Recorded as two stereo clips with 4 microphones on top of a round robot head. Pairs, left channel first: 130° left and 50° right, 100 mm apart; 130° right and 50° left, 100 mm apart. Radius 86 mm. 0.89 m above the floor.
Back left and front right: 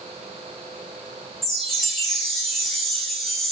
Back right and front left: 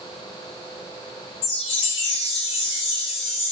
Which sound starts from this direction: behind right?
A chime, at 1.4 s.